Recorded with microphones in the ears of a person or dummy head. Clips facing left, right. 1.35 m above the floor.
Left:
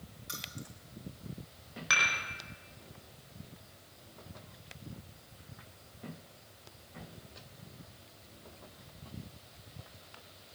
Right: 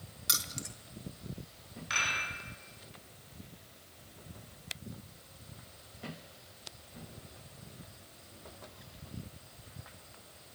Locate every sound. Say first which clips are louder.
0.3 s keys jangling: right 2 dB; 80° right, 1.0 m
1.9 s dishes clattering: left 3 dB; 85° left, 4 m